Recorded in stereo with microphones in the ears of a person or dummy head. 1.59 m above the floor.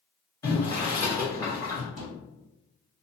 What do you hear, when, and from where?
0.4 s boiling: 15° left (ahead or behind), 1.0 m
2.0 s a thud: 30° left (ahead or behind), 1.9 m